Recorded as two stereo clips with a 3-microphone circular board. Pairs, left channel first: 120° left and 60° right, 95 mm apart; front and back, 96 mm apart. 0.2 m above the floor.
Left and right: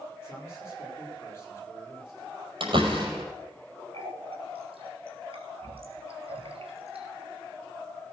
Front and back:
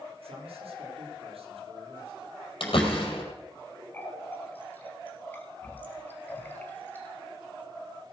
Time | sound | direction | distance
0.2 | a man speaking | 175° right | 6.5 m
2.6 | a door slam | 30° right | 5 m
3.9 | a running tap | 70° right | 3 m